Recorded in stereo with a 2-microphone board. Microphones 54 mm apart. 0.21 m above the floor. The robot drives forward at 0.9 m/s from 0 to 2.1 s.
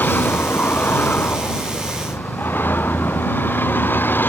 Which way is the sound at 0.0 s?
35° left (ahead or behind).